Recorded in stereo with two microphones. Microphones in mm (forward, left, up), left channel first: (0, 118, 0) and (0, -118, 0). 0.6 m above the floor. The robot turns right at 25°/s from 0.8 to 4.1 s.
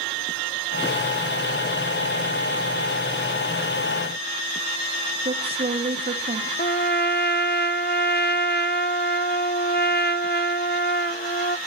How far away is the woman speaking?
About 1.7 m.